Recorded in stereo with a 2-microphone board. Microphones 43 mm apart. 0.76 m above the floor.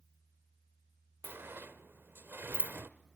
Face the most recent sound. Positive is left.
turn(degrees=-65)  # may be behind; listen again after turning